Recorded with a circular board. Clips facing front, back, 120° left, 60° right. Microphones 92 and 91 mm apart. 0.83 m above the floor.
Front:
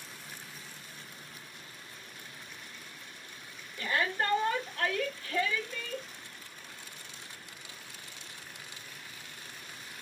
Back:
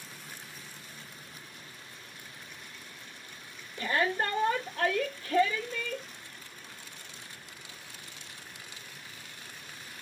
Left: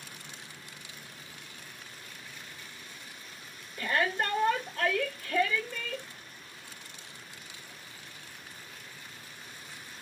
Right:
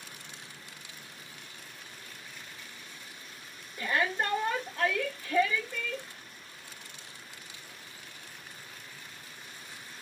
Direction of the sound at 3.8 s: 130° right.